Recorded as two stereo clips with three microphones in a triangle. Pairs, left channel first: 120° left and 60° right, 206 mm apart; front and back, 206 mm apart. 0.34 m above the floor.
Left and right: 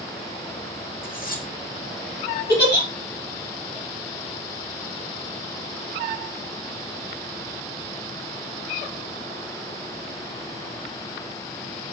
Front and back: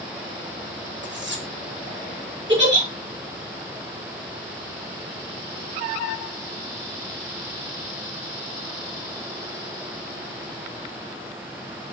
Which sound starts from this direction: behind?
Cutlery clinking, at 1.0 s.